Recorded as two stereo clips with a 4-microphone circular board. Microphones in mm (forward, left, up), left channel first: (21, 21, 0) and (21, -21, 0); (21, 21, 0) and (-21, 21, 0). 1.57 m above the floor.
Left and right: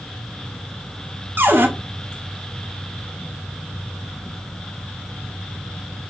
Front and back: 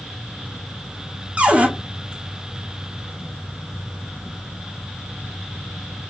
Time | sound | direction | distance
1.4 | a cupboard door | 120° right | 0.8 m